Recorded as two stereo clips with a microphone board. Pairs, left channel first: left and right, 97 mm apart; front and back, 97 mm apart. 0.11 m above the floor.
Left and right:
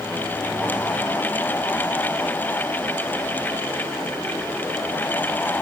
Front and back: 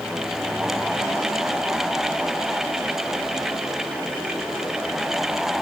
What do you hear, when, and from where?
Only background noise.